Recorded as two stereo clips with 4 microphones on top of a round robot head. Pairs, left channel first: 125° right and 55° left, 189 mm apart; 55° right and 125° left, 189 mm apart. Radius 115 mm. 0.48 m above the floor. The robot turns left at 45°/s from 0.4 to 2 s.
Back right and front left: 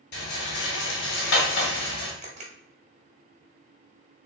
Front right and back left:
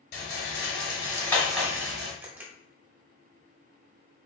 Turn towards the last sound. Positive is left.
turn(degrees=55)